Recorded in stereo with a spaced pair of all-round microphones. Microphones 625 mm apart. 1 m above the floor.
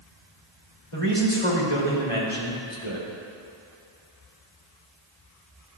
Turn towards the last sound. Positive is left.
turn(degrees=55)  # may be behind; listen again after turning